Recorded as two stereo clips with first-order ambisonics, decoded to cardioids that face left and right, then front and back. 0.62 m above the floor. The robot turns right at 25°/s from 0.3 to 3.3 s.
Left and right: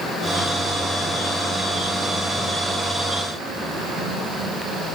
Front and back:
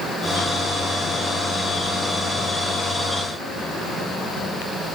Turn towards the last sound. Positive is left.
No sound to turn to.